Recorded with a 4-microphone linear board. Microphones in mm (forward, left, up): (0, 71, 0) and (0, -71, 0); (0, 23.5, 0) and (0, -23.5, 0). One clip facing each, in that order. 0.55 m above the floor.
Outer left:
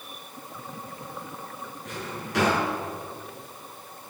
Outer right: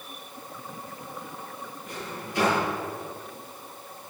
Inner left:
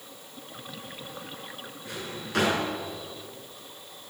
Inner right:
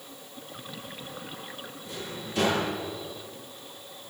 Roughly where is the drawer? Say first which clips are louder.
Outer left 2 dB, inner left 1 dB; left.